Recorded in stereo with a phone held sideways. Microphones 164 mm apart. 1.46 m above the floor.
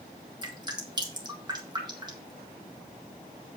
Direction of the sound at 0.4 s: 25° right (ahead or behind).